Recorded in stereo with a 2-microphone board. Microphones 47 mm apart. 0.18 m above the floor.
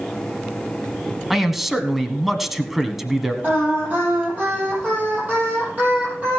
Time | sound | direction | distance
1.3 | a man speaking | 5° right (ahead or behind) | 1.2 m
3.4 | singing | 35° right (ahead or behind) | 5 m